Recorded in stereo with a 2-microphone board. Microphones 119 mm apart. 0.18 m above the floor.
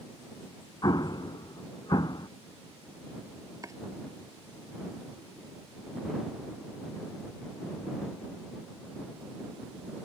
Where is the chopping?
30° right (ahead or behind).